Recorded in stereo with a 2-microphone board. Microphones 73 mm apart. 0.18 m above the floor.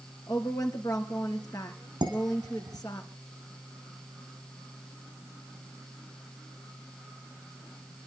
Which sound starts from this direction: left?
A woman speaking, at 0.3 s.